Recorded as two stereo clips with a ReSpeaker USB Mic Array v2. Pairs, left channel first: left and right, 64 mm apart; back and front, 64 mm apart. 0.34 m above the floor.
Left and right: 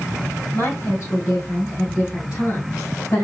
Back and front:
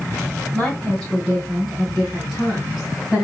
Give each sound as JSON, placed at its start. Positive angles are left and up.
{"t": 0.5, "sound": "a woman speaking", "azimuth_deg": 110, "distance_m": 2.0}